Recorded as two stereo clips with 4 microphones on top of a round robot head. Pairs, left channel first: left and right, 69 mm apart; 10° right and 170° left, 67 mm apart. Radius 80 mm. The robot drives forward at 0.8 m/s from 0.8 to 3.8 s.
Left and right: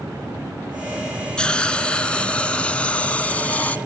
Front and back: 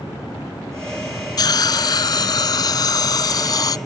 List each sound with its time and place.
1.4 s a hiss: 10° left; by 3.8 s 15° left